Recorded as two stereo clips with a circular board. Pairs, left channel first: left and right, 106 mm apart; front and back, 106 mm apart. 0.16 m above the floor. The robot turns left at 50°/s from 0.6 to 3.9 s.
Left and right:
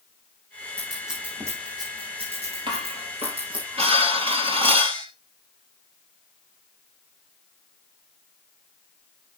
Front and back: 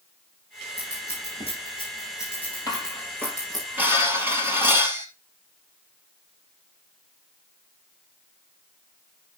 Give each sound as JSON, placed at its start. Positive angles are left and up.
{"t": 0.8, "sound": "scissors", "azimuth_deg": 10, "distance_m": 9.5}
{"t": 2.7, "sound": "dishes clattering", "azimuth_deg": -50, "distance_m": 2.5}